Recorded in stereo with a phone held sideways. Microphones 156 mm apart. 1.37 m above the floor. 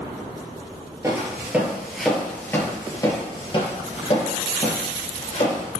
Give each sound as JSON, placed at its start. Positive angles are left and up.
{"t": 1.0, "sound": "footsteps", "side_deg": -20, "distance_m": 1.5}